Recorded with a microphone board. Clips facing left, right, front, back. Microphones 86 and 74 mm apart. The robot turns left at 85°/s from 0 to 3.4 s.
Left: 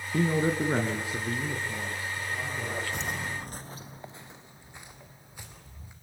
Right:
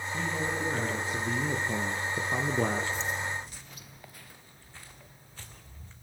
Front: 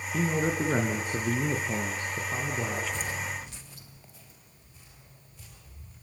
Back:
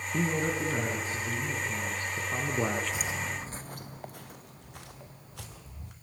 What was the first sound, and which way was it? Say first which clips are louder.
A man speaking: left 7 dB, front 2 dB; 95° left.